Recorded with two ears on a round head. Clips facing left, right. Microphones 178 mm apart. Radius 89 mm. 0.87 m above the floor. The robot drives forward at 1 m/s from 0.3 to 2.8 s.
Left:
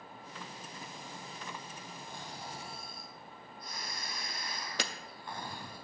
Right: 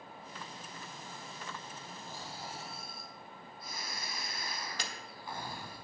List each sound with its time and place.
2.1 s snoring: 5° right (ahead or behind), 1.1 m
4.8 s a camera shutter: 55° left (ahead or behind), 0.6 m